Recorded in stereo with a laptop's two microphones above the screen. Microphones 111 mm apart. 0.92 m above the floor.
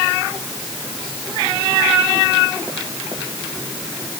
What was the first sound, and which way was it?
Only background noise.